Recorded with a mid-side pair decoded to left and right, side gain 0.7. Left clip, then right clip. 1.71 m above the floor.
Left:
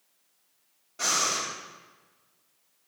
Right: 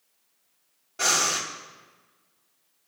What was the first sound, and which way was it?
Breathing, 20° right.